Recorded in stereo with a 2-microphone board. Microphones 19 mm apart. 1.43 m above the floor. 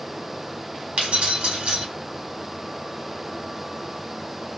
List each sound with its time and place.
1.0 s keys jangling: 75° right (ahead or behind), 1.6 m